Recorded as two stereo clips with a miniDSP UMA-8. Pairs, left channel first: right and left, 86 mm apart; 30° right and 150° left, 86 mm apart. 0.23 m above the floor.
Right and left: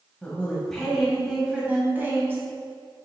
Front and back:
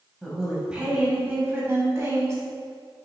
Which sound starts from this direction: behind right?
A woman speaking, at 0.2 s.